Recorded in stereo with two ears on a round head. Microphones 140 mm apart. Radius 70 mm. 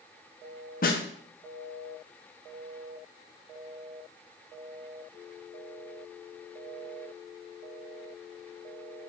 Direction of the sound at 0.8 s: 55° left (ahead or behind).